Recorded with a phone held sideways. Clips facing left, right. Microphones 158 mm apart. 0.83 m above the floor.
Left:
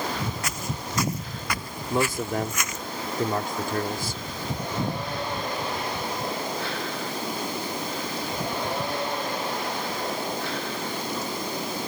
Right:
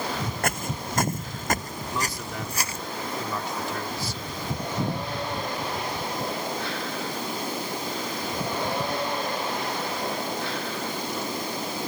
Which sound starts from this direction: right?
Footsteps, at 0.4 s.